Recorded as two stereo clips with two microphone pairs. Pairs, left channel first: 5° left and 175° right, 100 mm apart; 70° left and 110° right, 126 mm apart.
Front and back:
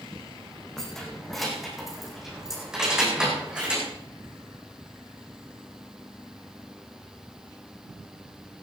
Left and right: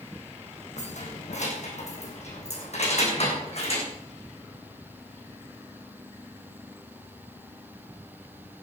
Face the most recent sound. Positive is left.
turn(degrees=105)